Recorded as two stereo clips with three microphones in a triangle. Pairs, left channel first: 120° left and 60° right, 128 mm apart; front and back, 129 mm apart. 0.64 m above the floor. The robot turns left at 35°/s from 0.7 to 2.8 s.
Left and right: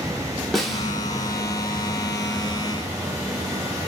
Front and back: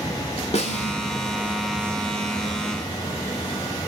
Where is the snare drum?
30° left, 0.9 m; by 0.9 s 25° left, 0.9 m.